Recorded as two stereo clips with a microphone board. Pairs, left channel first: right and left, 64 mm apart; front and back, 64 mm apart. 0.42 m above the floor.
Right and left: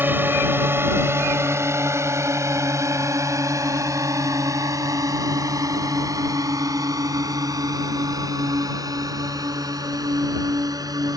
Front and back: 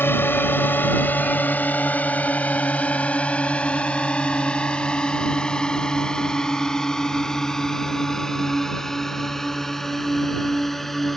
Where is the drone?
45° left; by 11.2 s 85° left.